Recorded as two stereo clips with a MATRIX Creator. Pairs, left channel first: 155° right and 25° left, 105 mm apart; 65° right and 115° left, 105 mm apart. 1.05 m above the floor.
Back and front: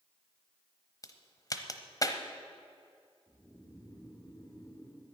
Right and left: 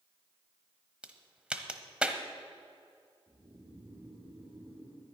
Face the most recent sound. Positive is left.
turn(degrees=150)